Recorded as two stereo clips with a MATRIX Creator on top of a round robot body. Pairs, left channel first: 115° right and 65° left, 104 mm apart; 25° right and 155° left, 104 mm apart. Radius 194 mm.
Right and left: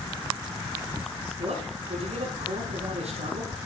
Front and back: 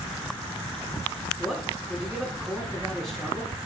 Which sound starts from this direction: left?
A man speaking, at 1.4 s.